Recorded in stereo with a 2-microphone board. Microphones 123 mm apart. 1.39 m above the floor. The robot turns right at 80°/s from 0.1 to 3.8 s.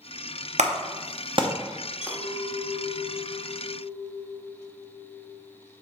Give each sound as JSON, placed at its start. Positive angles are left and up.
{"t": 0.6, "sound": "a clap", "side_deg": -70, "distance_m": 0.8}
{"t": 2.0, "sound": "a clink", "azimuth_deg": -5, "distance_m": 1.6}